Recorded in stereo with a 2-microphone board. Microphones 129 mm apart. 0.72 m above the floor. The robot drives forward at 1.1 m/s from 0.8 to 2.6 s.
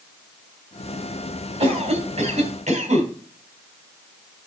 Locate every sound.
1.6 s a cough: 50° right (ahead or behind), 4.5 m; by 3.1 s 60° right (ahead or behind), 4 m